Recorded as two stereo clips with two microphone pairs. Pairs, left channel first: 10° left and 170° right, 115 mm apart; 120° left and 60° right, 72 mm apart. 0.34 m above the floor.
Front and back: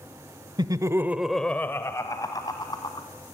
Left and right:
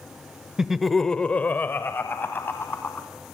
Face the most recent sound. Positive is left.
turn(degrees=60)